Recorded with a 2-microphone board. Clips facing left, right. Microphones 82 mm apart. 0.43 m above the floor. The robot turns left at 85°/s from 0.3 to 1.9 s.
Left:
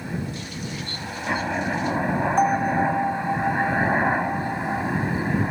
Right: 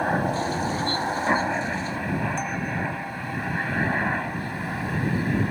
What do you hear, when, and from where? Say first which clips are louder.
0.0 s a helicopter: right 8 dB; 60° right (ahead or behind); by 5.5 s 15° left (ahead or behind)
2.4 s a bell: left 9 dB; 45° left (ahead or behind)